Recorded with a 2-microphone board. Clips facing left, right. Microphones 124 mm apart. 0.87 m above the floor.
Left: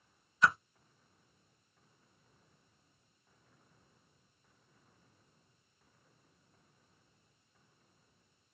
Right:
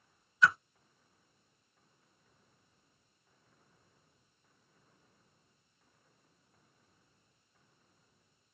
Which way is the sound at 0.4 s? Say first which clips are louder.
Right 1 dB; 50° left (ahead or behind).